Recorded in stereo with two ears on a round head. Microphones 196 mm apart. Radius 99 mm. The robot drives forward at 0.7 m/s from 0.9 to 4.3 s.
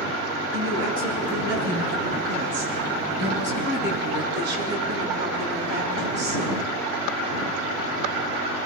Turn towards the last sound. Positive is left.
turn(degrees=-50)  # may be behind; listen again after turning